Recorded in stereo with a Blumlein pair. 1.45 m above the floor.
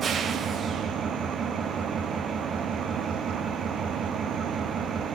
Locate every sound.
0.0 s an engine running: 25° right, 0.7 m